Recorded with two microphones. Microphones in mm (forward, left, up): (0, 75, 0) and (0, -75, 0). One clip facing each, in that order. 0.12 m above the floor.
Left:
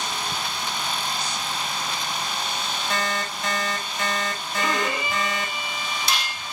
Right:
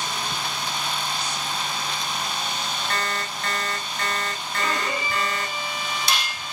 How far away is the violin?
About 3 m.